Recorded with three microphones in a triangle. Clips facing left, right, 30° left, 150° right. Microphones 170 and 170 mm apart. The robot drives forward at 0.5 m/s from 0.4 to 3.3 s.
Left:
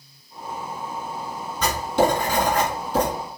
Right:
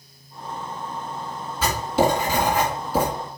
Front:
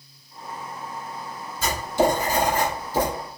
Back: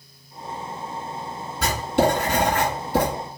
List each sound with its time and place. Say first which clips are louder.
1.6 s writing: even, back 1 dB; 175° right, 2.5 m